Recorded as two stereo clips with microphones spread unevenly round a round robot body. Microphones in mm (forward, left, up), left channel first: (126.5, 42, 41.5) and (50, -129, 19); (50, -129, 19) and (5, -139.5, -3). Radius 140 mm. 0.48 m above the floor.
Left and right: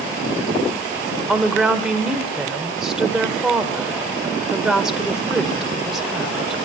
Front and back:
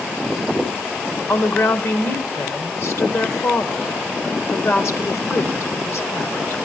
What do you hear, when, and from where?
1.3 s a woman speaking: 30° right, 1.6 m